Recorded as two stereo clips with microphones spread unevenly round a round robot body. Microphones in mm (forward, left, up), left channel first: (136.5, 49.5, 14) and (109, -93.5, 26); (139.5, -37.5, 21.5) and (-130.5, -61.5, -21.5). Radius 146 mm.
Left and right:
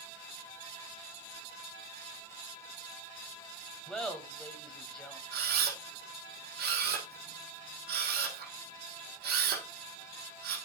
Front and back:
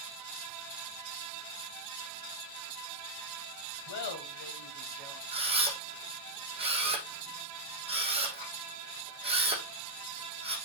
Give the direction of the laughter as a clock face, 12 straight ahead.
12 o'clock.